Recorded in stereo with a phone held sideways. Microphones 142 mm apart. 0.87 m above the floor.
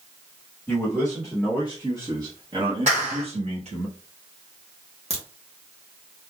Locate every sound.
0.7 s a man speaking: 5° left (ahead or behind), 1.4 m; by 3.9 s 50° right (ahead or behind), 1.3 m
2.9 s a clap: 60° right (ahead or behind), 2 m
5.1 s a crack: 45° right (ahead or behind), 0.9 m